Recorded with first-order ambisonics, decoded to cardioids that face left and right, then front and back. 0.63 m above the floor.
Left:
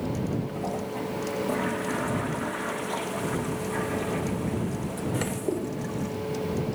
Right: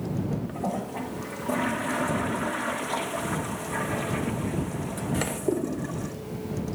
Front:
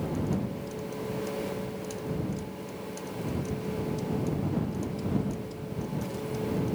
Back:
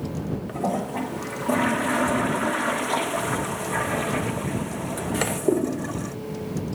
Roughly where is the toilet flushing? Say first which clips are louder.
Even, back 10 dB; behind.